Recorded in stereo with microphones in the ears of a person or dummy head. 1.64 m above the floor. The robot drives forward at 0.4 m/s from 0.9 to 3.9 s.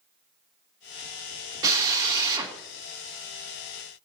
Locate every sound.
1.6 s a drill: 25° right (ahead or behind), 3 m